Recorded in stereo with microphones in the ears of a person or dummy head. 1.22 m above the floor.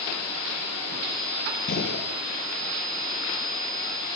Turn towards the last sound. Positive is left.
turn(degrees=55)  # may be behind; listen again after turning